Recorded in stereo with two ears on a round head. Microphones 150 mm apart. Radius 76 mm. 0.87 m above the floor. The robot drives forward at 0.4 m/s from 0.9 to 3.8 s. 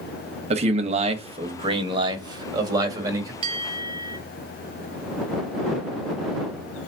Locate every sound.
0.5 s a man speaking: 40° right (ahead or behind), 0.8 m; by 3.3 s 20° right (ahead or behind), 1.5 m
3.4 s a bell: 35° right (ahead or behind), 0.8 m; by 4.2 s 30° right (ahead or behind), 0.9 m